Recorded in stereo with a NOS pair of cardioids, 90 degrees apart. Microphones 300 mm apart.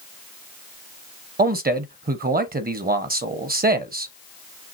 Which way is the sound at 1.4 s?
30° right.